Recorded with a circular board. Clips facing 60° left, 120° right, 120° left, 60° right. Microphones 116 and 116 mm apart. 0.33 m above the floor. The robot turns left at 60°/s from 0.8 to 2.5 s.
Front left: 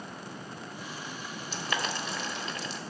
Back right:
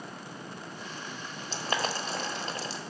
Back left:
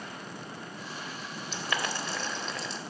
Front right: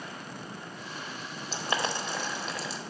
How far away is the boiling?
About 0.8 m.